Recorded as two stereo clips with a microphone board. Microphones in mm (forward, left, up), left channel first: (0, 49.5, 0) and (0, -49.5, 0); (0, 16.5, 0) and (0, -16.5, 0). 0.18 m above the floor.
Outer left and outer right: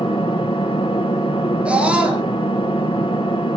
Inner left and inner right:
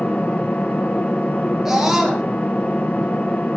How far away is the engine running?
About 3.5 m.